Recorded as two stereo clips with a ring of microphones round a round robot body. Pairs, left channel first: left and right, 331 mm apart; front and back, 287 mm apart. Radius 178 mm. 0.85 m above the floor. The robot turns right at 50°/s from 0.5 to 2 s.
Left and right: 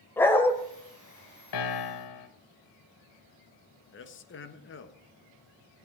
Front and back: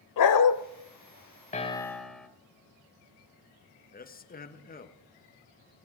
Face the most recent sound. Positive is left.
turn(degrees=50)